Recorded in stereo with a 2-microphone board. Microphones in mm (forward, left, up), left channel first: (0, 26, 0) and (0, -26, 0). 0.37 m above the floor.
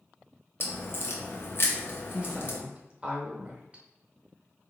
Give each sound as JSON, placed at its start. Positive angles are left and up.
{"t": 0.6, "sound": "a crack", "side_deg": 55, "distance_m": 0.8}
{"t": 2.1, "sound": "a woman speaking", "side_deg": -25, "distance_m": 0.9}